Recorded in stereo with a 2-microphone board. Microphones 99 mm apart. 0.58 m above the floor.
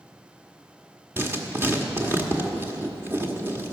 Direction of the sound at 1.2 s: 25° right (ahead or behind).